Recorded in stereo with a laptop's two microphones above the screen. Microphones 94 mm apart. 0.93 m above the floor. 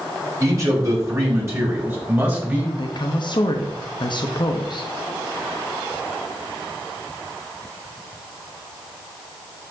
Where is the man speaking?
35° right (ahead or behind), 3 m; by 2.7 s 20° right (ahead or behind), 4 m.